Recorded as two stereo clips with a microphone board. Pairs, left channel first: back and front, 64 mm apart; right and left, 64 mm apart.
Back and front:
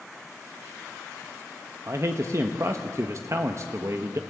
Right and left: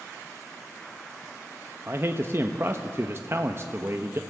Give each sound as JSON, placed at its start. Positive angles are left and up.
{"t": 1.9, "sound": "a man speaking", "azimuth_deg": 40, "distance_m": 1.0}